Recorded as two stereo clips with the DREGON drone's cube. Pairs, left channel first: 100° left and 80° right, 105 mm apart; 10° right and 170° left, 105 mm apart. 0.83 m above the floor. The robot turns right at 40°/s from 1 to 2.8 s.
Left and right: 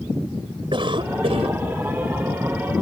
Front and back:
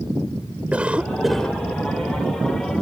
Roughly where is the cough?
Right.